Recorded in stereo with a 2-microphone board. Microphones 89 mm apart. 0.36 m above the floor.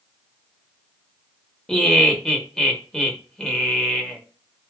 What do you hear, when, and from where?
1.7 s laughter: 5° left (ahead or behind), 0.9 m